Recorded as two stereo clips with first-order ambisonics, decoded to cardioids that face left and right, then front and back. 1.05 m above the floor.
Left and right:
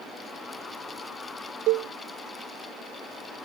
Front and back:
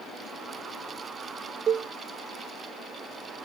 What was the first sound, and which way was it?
A cowbell, 115° right.